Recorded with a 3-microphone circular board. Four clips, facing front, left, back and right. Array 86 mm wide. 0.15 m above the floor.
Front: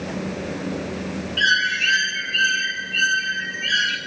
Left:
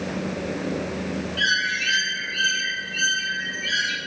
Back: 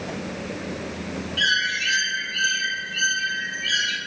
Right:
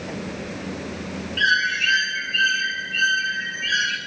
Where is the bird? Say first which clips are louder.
Right 5 dB, front 4 dB; 40° right, 1.0 m.